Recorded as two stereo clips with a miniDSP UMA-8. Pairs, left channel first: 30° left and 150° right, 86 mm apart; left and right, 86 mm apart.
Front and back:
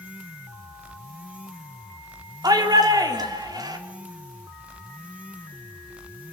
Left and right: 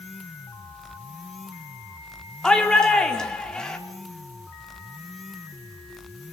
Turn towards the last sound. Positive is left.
turn(degrees=170)